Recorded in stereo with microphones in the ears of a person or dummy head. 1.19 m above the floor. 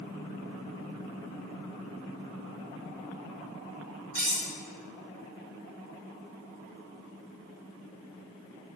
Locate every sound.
4.2 s cutlery clinking: 75° right (ahead or behind), 1.9 m